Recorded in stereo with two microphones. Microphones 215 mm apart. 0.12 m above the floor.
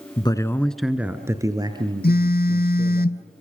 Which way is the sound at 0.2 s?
25° left (ahead or behind).